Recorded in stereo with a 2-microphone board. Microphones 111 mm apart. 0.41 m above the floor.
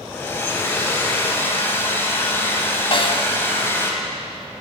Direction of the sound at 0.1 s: 20° left (ahead or behind).